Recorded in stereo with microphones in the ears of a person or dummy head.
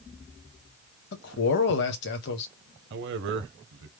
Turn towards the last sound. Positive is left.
turn(degrees=-65)  # may be behind; listen again after turning